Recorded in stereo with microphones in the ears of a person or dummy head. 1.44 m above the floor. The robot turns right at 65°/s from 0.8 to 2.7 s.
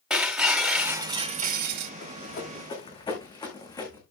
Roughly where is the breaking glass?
Behind.